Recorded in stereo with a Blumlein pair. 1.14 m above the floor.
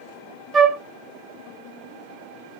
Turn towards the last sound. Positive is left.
turn(degrees=-25)